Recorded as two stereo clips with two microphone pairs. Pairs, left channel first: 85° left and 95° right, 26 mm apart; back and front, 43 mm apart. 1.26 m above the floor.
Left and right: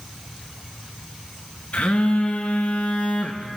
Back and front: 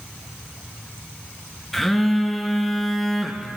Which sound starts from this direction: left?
A phone buzzing, at 1.7 s.